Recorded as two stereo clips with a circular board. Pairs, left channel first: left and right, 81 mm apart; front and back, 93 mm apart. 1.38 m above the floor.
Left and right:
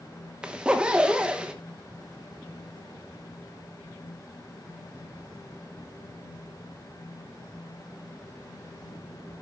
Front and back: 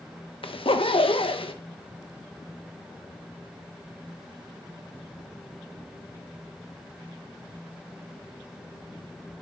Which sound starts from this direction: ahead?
A zipper, at 0.4 s.